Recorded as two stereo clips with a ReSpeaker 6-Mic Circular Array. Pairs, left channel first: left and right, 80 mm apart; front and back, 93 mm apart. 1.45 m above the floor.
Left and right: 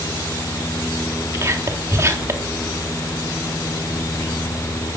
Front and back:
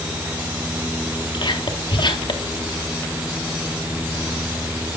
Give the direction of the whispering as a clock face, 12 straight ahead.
1 o'clock.